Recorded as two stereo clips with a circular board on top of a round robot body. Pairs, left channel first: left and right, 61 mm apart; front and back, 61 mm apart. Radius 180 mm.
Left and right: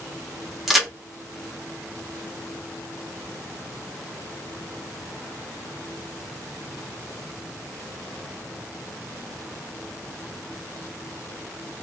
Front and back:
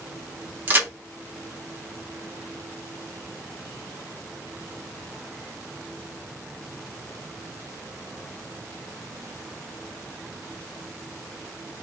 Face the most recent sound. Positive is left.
turn(degrees=-175)